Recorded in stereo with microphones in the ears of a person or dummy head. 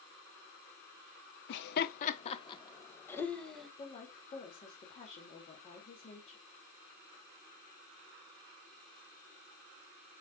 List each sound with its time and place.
1.5 s laughter: 70° left (ahead or behind), 1.1 m; by 3.7 s 5° left (ahead or behind), 1.9 m
3.8 s a woman speaking: 35° left (ahead or behind), 2.5 m